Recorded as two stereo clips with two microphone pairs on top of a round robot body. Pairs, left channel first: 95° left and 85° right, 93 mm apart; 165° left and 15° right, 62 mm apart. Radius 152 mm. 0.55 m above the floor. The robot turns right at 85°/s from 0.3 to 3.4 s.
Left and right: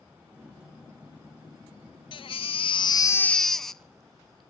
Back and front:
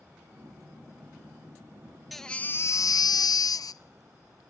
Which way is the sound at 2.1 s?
70° left.